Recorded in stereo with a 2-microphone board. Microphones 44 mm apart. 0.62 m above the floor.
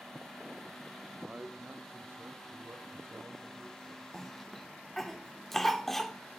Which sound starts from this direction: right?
A man speaking, at 1.2 s.